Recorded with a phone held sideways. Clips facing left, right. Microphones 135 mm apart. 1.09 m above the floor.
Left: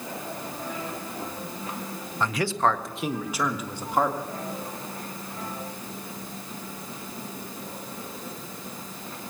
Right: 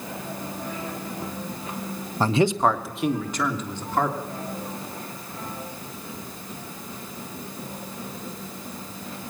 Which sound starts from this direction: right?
A man speaking, at 2.2 s.